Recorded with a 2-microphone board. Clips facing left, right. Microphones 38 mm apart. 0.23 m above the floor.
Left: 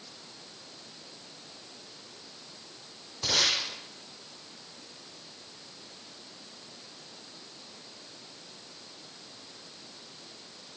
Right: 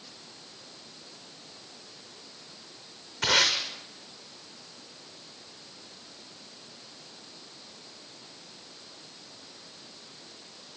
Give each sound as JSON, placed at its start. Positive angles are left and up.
{"t": 3.2, "sound": "tape being pulled", "side_deg": -80, "distance_m": 6.5}